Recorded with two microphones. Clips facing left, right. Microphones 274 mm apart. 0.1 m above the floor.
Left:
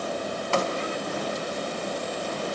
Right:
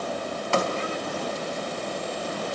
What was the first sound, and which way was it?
Only background noise.